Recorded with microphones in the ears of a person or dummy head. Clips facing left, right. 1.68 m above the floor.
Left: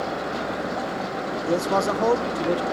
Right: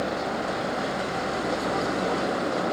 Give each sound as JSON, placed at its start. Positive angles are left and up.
{"t": 1.5, "sound": "a man speaking", "side_deg": 75}